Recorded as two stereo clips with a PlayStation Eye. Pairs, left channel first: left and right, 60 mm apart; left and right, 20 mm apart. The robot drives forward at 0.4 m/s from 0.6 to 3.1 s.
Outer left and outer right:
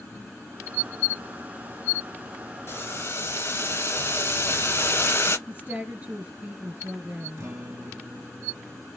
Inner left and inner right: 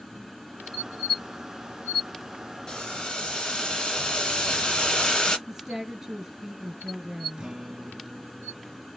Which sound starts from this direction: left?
Boiling, at 2.7 s.